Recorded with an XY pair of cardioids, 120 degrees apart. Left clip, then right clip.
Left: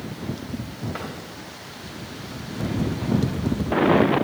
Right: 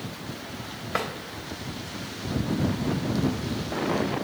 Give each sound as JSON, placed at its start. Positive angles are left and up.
{"t": 0.9, "sound": "a drawer", "azimuth_deg": -65, "distance_m": 2.5}